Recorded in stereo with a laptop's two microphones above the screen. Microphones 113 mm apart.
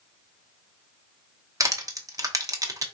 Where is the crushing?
30° right (ahead or behind), 0.8 m.